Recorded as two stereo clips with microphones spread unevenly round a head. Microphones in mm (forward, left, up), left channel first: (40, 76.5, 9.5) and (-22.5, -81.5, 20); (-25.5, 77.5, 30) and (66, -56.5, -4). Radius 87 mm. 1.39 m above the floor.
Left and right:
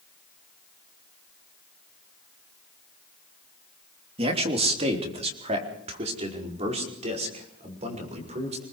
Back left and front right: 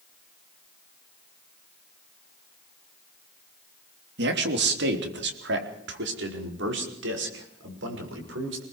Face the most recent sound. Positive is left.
turn(degrees=-60)